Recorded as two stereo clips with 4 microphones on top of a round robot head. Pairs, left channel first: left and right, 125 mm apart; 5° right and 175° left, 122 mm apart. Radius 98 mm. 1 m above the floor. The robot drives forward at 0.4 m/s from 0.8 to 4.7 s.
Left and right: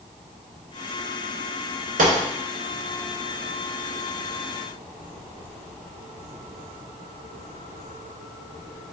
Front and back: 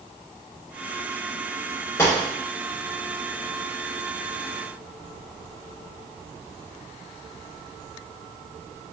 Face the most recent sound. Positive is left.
turn(degrees=-135)